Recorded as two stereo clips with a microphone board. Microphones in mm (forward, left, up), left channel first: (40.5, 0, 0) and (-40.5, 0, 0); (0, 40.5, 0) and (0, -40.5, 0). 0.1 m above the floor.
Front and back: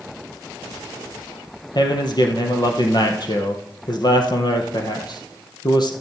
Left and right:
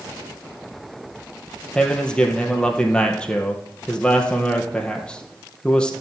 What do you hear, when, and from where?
1.8 s a man speaking: 15° left, 2.5 m